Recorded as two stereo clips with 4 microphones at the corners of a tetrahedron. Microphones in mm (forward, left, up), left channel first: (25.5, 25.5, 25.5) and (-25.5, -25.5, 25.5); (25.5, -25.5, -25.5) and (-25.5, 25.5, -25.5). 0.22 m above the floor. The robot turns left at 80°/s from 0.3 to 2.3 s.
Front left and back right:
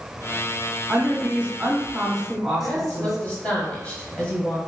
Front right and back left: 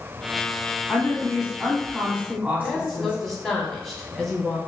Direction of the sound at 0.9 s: 110° right.